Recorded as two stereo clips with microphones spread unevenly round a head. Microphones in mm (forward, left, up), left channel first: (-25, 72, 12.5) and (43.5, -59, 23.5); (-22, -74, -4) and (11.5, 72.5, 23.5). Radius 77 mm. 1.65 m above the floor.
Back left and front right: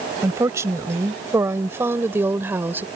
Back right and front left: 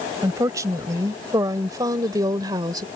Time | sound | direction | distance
0.2 | a woman speaking | 10° left | ?